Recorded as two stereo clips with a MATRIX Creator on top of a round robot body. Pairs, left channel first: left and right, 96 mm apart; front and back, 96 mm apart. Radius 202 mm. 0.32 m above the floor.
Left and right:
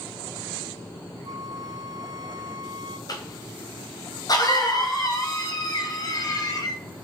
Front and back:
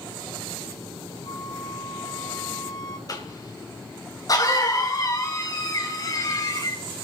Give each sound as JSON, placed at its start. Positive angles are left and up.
{"t": 1.2, "sound": "a flute", "azimuth_deg": -45, "distance_m": 0.7}
{"t": 3.1, "sound": "a cough", "azimuth_deg": 45, "distance_m": 3.0}